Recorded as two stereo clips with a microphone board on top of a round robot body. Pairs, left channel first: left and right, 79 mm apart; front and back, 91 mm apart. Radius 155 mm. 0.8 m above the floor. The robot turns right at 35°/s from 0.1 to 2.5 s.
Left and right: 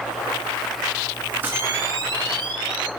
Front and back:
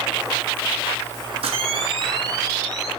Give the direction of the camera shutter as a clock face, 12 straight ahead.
5 o'clock.